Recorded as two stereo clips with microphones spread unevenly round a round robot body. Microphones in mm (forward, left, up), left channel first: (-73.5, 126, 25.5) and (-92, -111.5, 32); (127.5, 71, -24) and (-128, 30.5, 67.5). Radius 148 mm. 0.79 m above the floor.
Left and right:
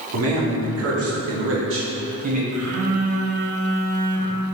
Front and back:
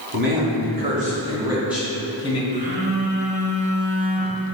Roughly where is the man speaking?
Behind right.